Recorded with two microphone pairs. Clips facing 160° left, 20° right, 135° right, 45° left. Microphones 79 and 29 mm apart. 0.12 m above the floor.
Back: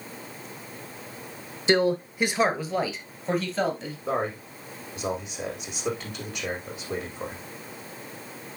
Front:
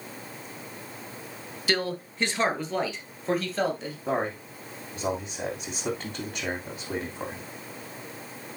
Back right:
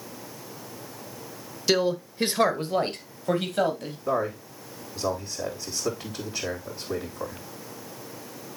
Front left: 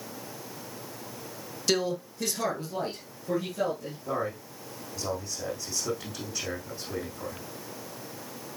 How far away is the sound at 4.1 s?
About 6 m.